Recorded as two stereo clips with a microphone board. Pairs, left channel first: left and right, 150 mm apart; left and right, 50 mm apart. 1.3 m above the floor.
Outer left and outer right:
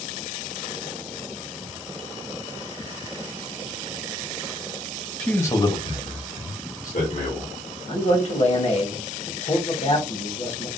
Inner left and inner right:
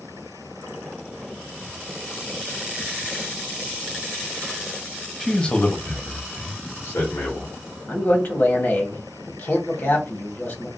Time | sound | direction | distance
5.2 | a man speaking | 5° left (ahead or behind) | 0.6 m
7.9 | a man speaking | 50° left (ahead or behind) | 1.0 m